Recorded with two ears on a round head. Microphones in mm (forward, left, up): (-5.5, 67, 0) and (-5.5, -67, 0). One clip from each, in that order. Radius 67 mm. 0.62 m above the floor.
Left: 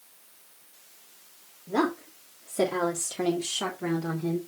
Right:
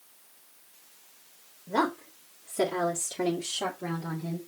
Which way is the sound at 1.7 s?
10° right (ahead or behind).